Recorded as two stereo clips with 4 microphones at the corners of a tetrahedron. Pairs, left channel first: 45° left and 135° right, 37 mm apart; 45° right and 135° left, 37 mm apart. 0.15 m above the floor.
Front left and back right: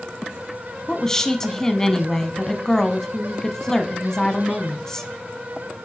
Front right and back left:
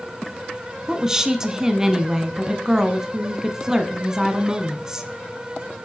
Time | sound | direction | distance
0.9 | a woman speaking | 95° left | 1.2 m